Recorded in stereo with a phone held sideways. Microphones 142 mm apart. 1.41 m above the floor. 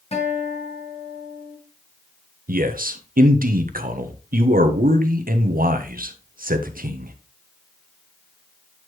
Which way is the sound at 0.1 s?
50° left (ahead or behind).